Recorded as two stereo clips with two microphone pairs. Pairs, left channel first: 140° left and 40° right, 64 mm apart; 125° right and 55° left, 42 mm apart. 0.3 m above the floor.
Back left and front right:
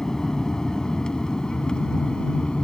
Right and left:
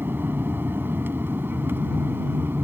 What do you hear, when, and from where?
0.0 s an aircraft: 60° left; by 2.6 s 65° left